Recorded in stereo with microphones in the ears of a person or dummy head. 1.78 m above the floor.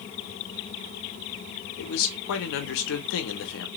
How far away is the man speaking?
About 0.9 m.